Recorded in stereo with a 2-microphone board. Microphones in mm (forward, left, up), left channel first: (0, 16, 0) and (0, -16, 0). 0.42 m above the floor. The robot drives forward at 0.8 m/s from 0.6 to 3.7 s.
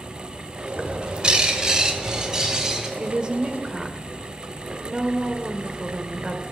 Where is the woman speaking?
30° right (ahead or behind), 1.1 m; by 6.4 s 25° right (ahead or behind), 1.3 m.